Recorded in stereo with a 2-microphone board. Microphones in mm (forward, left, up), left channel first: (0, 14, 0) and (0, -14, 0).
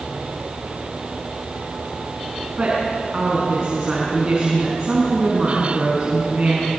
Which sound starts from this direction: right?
A woman speaking, at 2.6 s.